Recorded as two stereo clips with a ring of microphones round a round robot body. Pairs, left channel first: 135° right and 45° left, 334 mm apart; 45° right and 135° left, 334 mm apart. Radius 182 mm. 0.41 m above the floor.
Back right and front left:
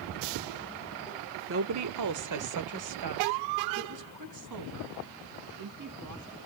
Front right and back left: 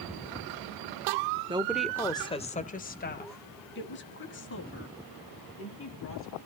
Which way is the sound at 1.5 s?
70° left.